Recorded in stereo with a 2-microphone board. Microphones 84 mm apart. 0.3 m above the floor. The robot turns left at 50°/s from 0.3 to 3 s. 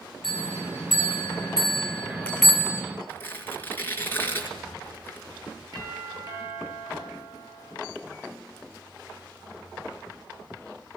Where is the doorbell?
55° right (ahead or behind), 9.5 m.